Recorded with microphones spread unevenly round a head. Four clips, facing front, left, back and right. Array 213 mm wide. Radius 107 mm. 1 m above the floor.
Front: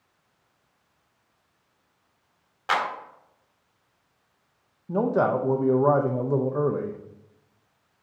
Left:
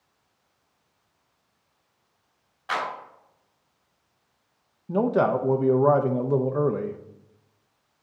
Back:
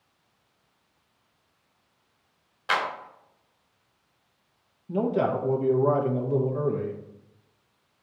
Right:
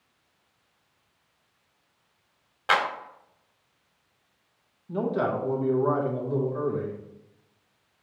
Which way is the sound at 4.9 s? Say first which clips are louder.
Left 5 dB, front 2 dB; 60° left.